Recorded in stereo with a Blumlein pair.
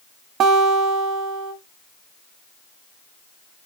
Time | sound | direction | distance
0.4 | a guitar | 30° right | 1.6 m